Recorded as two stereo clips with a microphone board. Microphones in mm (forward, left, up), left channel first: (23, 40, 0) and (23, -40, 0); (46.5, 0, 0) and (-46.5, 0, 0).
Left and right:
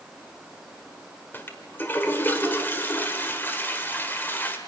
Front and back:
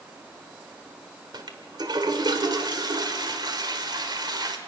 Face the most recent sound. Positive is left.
turn(degrees=150)